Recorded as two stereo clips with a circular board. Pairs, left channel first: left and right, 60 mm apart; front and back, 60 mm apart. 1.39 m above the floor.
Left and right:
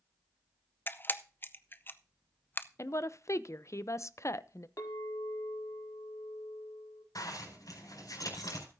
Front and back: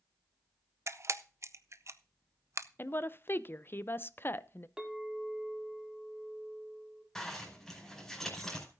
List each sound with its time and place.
0.9 s a camera shutter: 145° left, 0.6 m
2.8 s a woman speaking: 55° left, 0.5 m
4.8 s a clink: 100° left, 1.9 m
7.2 s a zipper: 85° left, 5 m